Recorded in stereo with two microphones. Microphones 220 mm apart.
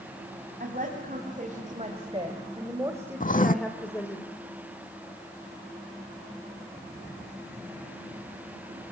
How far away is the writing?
About 0.6 m.